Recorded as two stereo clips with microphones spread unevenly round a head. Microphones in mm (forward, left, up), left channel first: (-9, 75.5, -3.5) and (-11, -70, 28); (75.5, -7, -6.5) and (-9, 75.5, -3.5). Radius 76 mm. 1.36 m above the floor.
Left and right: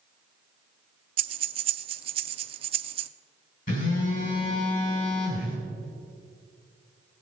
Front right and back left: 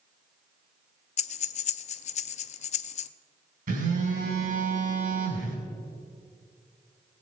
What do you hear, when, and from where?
1.2 s breathing: 35° right, 0.5 m
3.7 s a phone buzzing: 125° left, 5 m